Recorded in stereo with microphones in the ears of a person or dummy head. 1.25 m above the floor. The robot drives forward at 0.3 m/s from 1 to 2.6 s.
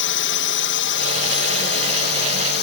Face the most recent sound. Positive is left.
turn(degrees=55)  # may be behind; listen again after turning